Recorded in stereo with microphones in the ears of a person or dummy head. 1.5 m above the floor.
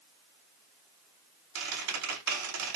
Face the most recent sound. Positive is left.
turn(degrees=-80)